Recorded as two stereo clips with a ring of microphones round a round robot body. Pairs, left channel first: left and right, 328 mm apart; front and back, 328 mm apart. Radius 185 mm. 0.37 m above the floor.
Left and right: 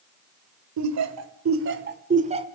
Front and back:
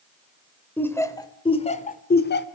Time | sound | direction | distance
0.8 | laughter | 85° right | 1.6 m